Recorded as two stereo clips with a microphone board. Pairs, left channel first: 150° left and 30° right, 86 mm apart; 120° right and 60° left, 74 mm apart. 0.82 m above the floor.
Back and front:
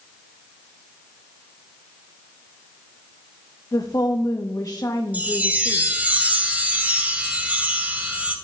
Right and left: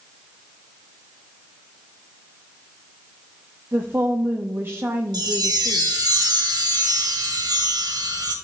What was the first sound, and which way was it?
A woman speaking, 115° left.